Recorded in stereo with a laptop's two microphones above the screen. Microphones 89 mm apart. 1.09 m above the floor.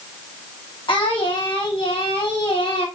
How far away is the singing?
About 0.9 m.